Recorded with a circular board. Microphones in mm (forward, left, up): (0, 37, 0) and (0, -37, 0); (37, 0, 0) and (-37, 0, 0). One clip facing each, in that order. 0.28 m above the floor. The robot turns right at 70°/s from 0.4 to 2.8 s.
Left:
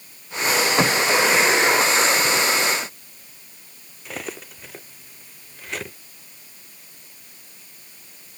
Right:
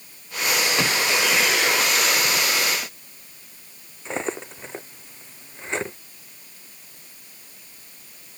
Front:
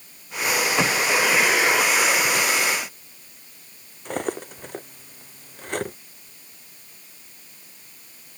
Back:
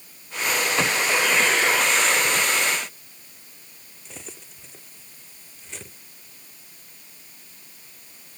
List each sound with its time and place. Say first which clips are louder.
4.0 s cutlery clinking: right 5 dB, front 17 dB; 30° right